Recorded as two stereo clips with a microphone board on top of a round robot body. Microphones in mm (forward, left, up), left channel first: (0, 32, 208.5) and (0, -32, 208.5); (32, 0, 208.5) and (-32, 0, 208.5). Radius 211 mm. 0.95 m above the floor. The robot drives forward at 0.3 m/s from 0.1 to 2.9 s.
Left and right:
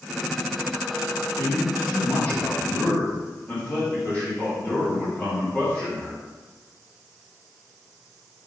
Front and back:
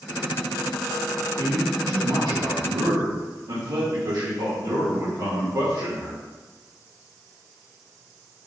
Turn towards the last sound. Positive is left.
turn(degrees=160)